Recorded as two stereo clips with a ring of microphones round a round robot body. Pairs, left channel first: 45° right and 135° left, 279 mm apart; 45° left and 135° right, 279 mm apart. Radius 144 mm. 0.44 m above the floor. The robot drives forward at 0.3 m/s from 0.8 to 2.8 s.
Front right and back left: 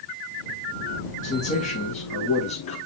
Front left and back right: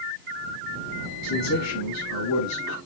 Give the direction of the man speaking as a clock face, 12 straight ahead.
11 o'clock.